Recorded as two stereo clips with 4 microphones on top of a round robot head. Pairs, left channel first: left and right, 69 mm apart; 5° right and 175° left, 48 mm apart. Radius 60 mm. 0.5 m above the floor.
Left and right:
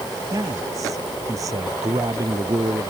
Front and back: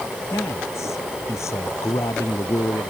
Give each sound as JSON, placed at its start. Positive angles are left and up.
{"t": 0.3, "sound": "a man speaking", "azimuth_deg": -40}